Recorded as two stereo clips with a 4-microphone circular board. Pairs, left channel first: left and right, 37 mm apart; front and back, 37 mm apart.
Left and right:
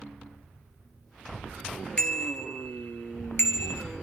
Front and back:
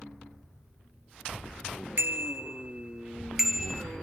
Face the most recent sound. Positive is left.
turn(degrees=90)